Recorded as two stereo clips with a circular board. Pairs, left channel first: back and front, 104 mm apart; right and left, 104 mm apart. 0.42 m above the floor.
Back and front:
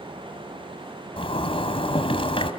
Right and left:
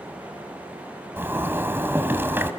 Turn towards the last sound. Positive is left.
turn(degrees=160)